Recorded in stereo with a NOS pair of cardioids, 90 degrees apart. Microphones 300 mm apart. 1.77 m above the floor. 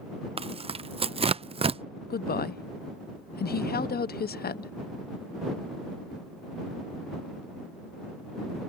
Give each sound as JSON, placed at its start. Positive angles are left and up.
{"t": 0.4, "sound": "tearing paper", "azimuth_deg": -20}
{"t": 2.1, "sound": "a woman speaking", "azimuth_deg": 35}